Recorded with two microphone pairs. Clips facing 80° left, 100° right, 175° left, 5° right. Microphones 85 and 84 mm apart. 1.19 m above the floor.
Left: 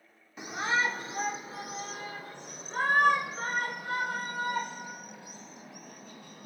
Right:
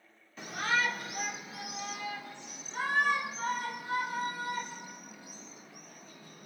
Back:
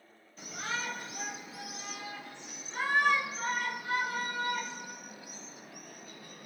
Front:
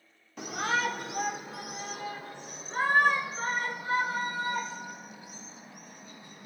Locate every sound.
0.4 s a shout: 10° left, 2.5 m; by 6.5 s 60° left, 7.5 m